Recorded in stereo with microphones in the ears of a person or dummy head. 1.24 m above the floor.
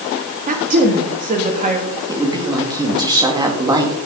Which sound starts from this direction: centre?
A woman speaking, at 2.1 s.